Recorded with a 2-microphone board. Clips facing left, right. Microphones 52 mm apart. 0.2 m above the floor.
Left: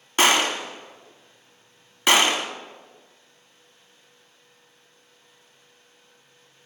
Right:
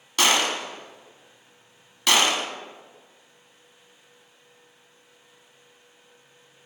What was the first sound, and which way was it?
A gunshot, 30° left (ahead or behind).